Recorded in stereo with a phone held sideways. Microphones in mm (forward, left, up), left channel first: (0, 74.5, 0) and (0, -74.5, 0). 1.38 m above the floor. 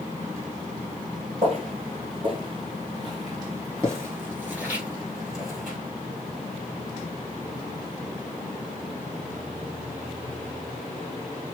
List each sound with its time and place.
1.4 s footsteps: 40° right (ahead or behind), 1.8 m; by 5.8 s centre (ahead or behind), 2.0 m